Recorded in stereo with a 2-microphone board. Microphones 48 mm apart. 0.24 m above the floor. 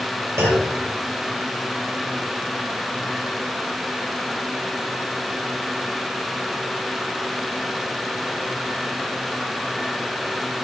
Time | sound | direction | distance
0.4 | a clunk | 80° right | 4 m